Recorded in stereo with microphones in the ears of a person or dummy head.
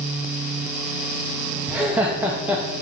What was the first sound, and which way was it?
Laughter, 5° right (ahead or behind).